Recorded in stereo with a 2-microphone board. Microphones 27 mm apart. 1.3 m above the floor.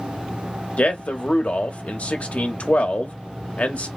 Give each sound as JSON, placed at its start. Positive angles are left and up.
{"t": 0.8, "sound": "a man speaking", "side_deg": 70, "distance_m": 0.9}